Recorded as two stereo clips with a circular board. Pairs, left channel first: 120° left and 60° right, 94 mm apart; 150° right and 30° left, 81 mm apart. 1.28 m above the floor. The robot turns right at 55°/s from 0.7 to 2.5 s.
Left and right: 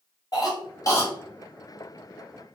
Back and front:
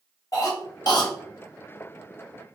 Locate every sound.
0.3 s a cough: 170° left, 0.9 m; by 1.1 s 170° right, 0.9 m